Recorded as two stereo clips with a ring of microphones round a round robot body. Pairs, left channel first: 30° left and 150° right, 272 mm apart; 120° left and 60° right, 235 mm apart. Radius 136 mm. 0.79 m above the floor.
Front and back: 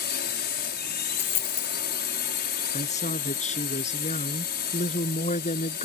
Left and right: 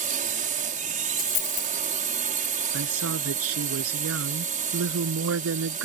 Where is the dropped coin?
95° left.